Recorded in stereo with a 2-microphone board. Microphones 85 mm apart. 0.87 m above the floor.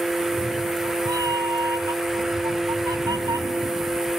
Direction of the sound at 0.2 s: 55° right (ahead or behind).